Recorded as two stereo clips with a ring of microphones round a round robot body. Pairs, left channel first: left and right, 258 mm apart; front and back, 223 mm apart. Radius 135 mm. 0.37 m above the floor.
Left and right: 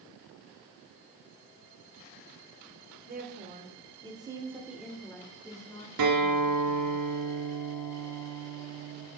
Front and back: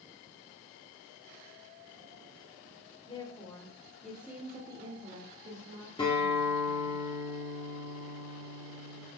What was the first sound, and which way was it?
A woman speaking, 60° right.